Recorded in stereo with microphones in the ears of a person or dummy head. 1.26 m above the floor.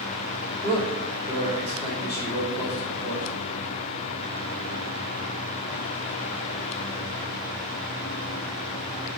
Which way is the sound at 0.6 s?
20° left (ahead or behind).